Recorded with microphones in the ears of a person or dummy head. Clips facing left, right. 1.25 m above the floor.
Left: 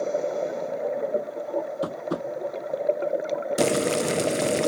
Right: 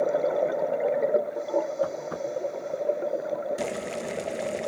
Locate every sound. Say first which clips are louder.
1.8 s tapping: left 1 dB; 55° left (ahead or behind)
3.6 s boiling: left 8 dB; 65° left (ahead or behind)